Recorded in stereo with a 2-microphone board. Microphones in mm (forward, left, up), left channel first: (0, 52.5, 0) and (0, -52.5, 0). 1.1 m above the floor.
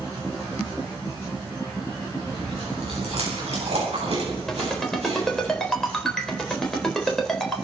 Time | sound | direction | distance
2.3 | chewing | 85° right | 8.5 m
4.5 | a ringtone | 5° left (ahead or behind) | 4 m